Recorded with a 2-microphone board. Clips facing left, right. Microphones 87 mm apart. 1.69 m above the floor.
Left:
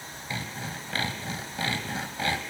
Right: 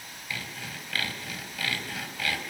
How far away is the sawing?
About 3 m.